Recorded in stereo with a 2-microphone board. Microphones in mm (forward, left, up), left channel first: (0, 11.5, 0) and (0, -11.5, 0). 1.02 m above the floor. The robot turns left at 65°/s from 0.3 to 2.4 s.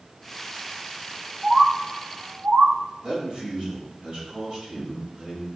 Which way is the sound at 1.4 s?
10° right (ahead or behind).